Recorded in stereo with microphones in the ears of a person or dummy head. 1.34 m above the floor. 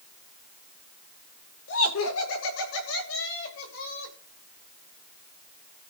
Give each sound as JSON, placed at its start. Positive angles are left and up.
{"t": 1.7, "sound": "laughter", "side_deg": 85, "distance_m": 5.5}